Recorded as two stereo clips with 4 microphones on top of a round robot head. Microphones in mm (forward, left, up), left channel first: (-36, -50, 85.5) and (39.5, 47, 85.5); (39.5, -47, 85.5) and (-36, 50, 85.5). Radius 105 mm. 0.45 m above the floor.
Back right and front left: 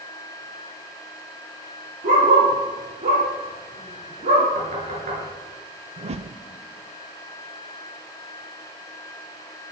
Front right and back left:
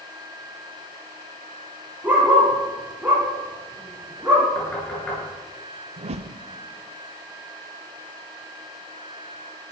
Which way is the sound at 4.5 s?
30° left.